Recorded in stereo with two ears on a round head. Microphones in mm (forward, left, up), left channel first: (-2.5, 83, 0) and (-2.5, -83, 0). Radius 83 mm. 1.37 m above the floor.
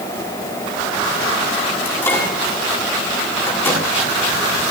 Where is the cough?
No cough in this recording.